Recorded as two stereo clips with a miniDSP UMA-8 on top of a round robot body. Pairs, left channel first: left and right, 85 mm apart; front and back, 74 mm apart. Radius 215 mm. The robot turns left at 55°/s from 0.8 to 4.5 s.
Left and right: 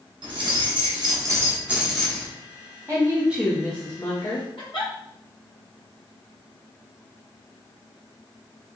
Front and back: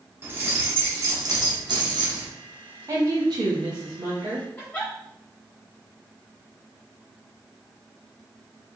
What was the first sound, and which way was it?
Keys jangling, 115° right.